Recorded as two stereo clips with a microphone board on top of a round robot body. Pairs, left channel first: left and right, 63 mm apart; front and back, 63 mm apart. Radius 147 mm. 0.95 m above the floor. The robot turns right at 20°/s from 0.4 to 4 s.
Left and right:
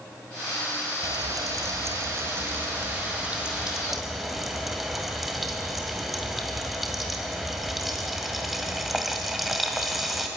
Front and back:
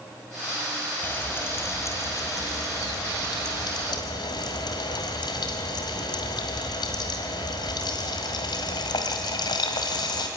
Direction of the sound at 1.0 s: 60° right.